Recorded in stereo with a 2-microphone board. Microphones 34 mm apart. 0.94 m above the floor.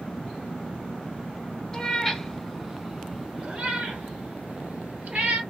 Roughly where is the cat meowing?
Centre.